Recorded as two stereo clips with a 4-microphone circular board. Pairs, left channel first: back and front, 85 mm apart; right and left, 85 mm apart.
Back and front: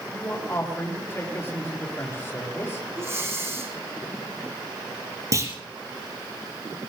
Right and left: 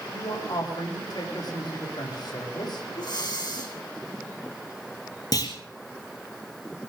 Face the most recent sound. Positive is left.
turn(degrees=-50)